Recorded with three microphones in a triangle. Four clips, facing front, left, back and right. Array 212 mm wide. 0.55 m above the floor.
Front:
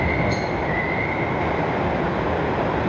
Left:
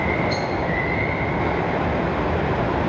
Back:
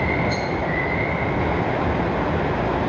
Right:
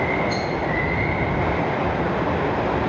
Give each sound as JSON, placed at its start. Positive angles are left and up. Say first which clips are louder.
{"t": 0.3, "sound": "a rattle", "louder": "left 1 dB, front 1 dB", "azimuth_deg": -15, "distance_m": 5.5}